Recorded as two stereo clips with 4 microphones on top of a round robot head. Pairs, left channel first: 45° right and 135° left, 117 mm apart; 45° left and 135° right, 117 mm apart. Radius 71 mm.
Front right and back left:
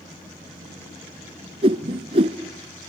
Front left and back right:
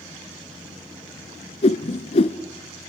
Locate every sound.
1.6 s a whoosh: 90° left, 0.9 m